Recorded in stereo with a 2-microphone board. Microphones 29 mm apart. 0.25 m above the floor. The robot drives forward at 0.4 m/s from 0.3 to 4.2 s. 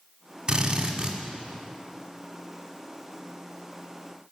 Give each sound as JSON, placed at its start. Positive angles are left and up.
{"t": 0.5, "sound": "a drill", "side_deg": -30, "distance_m": 1.4}